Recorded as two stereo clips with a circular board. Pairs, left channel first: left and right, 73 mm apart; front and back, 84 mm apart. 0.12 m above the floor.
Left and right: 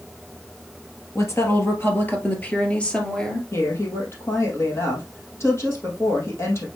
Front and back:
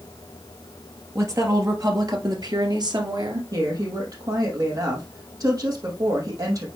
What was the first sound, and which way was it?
A woman speaking, 135° left.